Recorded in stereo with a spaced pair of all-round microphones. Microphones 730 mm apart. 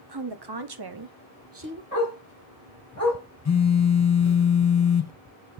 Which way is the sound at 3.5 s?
25° left (ahead or behind).